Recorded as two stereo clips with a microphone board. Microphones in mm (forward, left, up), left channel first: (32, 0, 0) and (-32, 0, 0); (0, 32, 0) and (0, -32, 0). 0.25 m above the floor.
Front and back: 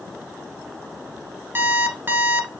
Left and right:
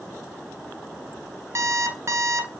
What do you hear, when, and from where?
1.6 s an alarm clock: 125° right, 1.1 m